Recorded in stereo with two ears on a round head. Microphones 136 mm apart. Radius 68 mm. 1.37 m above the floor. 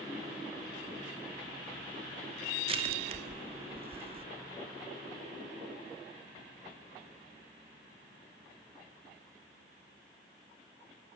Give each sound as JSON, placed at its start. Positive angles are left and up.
{"t": 2.7, "sound": "crushing", "side_deg": -40, "distance_m": 1.8}